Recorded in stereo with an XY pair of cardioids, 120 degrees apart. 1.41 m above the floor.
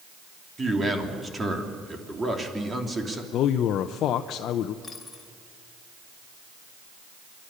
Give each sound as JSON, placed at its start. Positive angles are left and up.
{"t": 0.6, "sound": "a man speaking", "azimuth_deg": -20, "distance_m": 3.0}
{"t": 3.3, "sound": "a man speaking", "azimuth_deg": 65, "distance_m": 0.7}
{"t": 4.8, "sound": "a dropped coin", "azimuth_deg": 30, "distance_m": 3.0}